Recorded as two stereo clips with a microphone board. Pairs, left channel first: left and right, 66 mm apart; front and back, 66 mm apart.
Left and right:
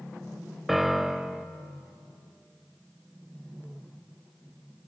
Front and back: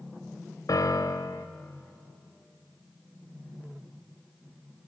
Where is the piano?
5° right, 1.0 m.